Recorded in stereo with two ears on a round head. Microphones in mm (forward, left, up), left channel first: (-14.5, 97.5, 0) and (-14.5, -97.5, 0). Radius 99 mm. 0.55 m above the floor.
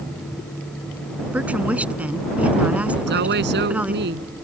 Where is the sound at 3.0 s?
50° right (ahead or behind).